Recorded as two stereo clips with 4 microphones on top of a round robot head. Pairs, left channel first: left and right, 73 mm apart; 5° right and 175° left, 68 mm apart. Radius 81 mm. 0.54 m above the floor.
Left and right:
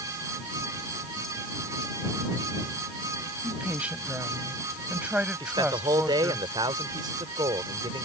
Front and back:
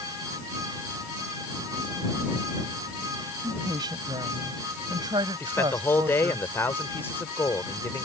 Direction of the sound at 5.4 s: 65° right.